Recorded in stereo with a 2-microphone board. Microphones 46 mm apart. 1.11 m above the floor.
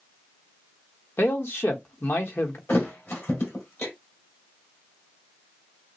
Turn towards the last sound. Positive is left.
turn(degrees=55)  # may be behind; listen again after turning